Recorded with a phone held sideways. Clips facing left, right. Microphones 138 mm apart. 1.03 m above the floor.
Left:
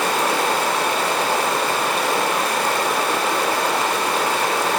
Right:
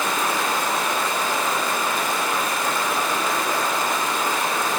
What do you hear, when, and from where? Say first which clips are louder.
0.0 s running water: left 4 dB; 70° left (ahead or behind), 1.3 m